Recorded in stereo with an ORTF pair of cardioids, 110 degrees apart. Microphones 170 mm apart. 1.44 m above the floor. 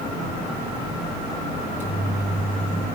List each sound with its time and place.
1.6 s a microwave: 10° right, 5 m